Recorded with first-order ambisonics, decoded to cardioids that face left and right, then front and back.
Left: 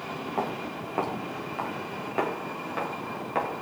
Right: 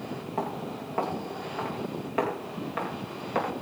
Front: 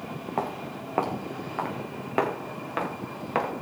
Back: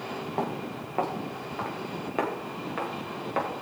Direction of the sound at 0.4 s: 15° left.